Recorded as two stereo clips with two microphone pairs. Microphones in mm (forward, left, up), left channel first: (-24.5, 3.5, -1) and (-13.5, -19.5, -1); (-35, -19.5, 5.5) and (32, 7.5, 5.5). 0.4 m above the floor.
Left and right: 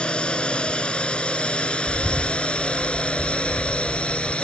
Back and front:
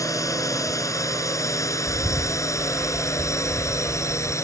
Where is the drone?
160° left; by 4.4 s 155° left.